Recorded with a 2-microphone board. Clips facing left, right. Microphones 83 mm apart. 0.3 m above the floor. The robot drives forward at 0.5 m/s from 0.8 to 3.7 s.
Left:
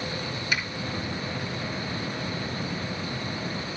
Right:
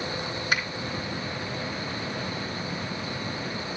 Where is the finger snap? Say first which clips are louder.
Right 2 dB; 50° right (ahead or behind), 3 m.